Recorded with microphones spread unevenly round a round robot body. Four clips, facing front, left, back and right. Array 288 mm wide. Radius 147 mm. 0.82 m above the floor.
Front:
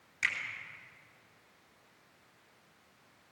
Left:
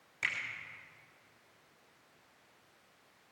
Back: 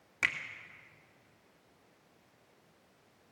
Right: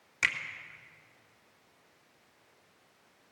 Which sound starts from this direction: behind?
A finger snap, at 0.2 s.